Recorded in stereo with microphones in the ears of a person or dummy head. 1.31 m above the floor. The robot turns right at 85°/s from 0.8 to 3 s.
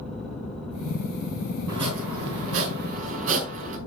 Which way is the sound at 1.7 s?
155° right.